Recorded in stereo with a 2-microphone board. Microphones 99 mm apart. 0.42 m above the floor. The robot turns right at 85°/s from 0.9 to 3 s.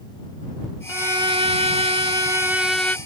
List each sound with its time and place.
0.9 s a violin: 155° right; by 3.0 s 20° left